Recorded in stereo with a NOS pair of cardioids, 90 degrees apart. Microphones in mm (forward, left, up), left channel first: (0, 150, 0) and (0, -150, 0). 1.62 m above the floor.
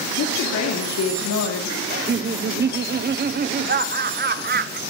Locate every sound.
0.2 s a woman speaking: 60° left, 3 m
1.9 s laughter: 35° right, 1.2 m